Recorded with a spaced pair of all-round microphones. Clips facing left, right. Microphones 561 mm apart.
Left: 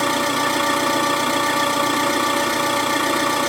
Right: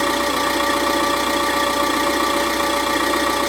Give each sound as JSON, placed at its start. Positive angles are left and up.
{"t": 0.0, "sound": "an engine running", "side_deg": 45, "distance_m": 1.7}